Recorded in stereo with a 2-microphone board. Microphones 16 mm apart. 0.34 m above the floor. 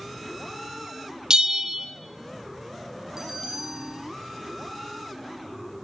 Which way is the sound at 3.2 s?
50° right (ahead or behind).